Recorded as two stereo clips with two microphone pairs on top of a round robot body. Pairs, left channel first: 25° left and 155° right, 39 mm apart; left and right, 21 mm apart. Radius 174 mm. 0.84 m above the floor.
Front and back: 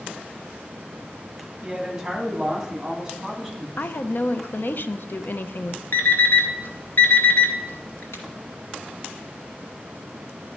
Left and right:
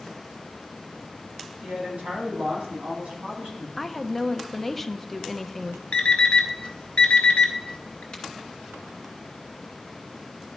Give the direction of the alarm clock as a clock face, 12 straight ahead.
10 o'clock.